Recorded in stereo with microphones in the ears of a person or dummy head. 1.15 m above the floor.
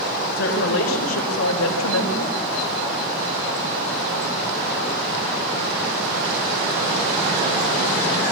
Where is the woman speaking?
60° left (ahead or behind), 5 m; by 2.4 s 85° left, 4.5 m.